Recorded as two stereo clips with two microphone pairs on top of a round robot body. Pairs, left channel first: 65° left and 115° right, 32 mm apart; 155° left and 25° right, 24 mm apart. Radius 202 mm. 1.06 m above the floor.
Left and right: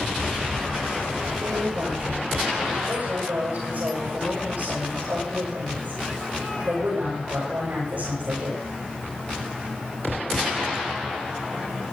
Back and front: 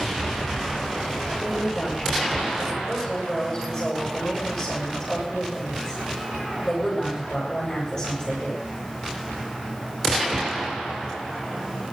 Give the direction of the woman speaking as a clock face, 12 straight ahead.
5 o'clock.